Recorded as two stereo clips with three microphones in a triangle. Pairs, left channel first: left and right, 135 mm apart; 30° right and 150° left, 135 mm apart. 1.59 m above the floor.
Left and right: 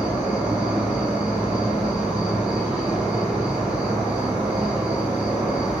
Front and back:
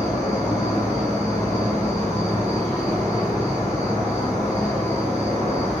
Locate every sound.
0.0 s an insect: 175° right, 1.3 m